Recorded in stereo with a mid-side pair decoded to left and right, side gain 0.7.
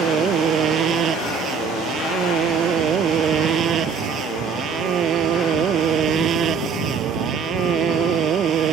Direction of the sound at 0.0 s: 40° right.